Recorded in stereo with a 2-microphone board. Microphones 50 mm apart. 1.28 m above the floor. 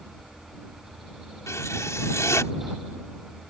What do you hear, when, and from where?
1.5 s writing: 85° left